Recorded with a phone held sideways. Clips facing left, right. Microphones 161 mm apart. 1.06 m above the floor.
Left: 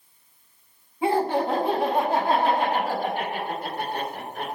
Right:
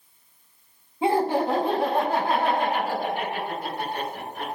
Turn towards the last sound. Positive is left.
turn(degrees=55)  # may be behind; listen again after turning